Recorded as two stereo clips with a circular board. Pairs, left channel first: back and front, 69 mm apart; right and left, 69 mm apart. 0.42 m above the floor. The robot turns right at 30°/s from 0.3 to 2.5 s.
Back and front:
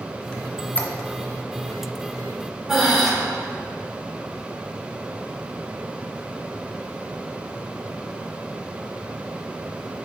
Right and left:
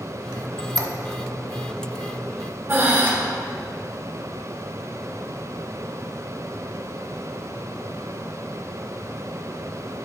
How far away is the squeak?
About 0.5 m.